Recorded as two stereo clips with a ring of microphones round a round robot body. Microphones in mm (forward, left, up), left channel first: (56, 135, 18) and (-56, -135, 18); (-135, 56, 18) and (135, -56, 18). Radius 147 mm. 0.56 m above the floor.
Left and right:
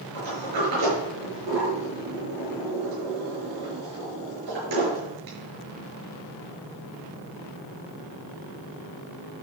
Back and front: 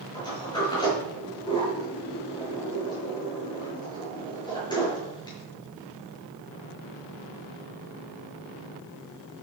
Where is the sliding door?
125° right, 8 m.